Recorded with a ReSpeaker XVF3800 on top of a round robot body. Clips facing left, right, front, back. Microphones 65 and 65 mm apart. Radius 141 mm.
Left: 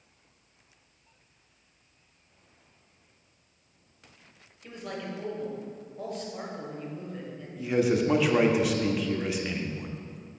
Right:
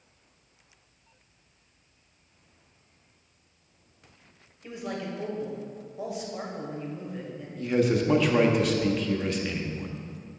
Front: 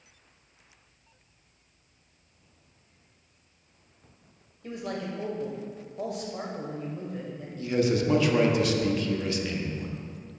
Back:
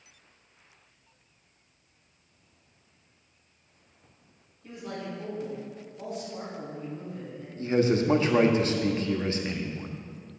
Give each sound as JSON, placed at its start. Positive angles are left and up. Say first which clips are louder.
{"t": 4.6, "sound": "a man speaking", "louder": "right 3 dB, front 3 dB", "azimuth_deg": -10, "distance_m": 2.0}
{"t": 7.6, "sound": "a man speaking", "louder": "even, back 1 dB", "azimuth_deg": 170, "distance_m": 1.0}